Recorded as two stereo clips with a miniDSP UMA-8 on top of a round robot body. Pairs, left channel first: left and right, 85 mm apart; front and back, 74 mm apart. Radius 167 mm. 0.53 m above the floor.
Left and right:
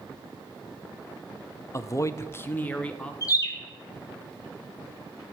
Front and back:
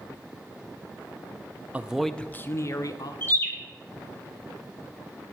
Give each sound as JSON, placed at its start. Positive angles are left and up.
{"t": 1.7, "sound": "a man speaking", "azimuth_deg": 120, "distance_m": 0.9}
{"t": 3.2, "sound": "a bird", "azimuth_deg": 55, "distance_m": 2.0}